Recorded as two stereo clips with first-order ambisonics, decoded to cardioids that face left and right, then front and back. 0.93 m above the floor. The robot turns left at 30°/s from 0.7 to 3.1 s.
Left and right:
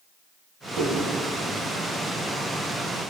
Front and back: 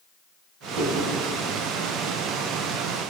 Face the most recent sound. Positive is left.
turn(degrees=135)